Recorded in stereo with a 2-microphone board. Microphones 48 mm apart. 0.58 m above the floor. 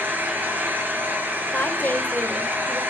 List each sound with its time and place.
0.0 s an engine running: 40° right (ahead or behind), 8 m
1.5 s a woman speaking: 35° left (ahead or behind), 3 m